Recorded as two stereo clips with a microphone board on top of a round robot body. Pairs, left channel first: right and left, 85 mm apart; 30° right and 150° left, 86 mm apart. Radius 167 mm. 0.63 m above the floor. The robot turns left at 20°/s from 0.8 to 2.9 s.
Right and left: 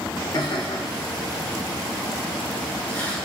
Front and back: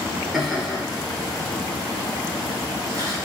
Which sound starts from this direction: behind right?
Laughter, at 0.3 s.